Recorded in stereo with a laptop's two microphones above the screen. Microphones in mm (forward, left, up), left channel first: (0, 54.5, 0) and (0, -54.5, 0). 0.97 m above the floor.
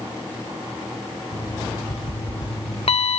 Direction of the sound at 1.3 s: 70° left (ahead or behind).